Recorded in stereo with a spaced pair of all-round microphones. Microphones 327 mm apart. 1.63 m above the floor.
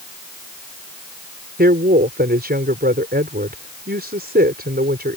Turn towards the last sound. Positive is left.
turn(degrees=-30)  # may be behind; listen again after turning